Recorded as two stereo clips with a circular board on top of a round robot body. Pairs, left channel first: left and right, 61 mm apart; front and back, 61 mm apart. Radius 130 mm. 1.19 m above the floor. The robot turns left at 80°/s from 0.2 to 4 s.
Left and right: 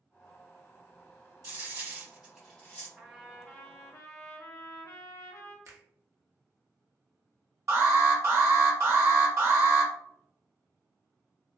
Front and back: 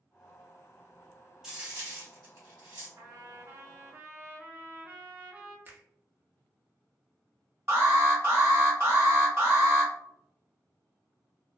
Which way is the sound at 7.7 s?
130° right.